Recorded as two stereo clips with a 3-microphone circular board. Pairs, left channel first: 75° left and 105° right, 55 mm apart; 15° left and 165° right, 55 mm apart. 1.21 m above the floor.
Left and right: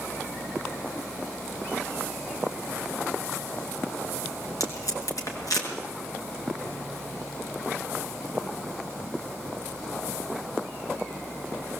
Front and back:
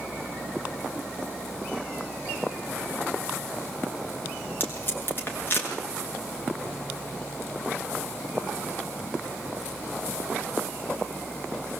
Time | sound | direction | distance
4.6 | tape being pulled | 65° left | 5.5 m